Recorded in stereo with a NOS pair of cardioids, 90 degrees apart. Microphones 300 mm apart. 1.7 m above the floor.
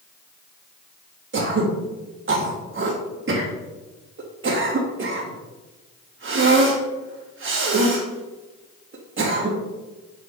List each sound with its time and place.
1.3 s throat clearing: 40° right, 3.5 m